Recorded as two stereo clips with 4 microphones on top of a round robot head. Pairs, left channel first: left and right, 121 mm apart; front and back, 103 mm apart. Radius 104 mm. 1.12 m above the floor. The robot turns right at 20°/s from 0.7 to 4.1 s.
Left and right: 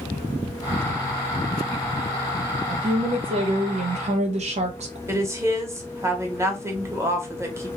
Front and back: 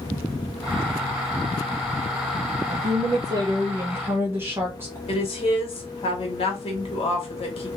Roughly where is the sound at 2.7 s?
Behind right.